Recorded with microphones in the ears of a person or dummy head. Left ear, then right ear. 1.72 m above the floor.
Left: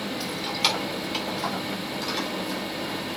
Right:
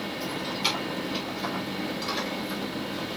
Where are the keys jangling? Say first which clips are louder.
Left 4 dB; 55° left (ahead or behind), 3.5 m; by 2.6 s 15° left (ahead or behind), 5.5 m.